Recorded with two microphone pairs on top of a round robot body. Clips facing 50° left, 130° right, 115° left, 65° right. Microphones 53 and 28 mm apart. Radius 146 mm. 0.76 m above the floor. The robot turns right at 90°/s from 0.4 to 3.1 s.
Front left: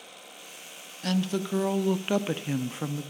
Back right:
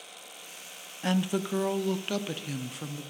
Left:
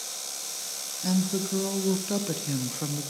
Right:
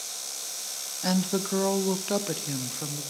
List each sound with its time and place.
1.0 s a woman speaking: 95° right, 0.7 m; by 3.1 s 90° left, 0.7 m